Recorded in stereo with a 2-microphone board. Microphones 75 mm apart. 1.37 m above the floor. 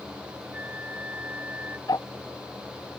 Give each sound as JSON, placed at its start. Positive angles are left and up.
{"t": 0.5, "sound": "a flute", "side_deg": -20}
{"t": 1.9, "sound": "ticking", "side_deg": 60}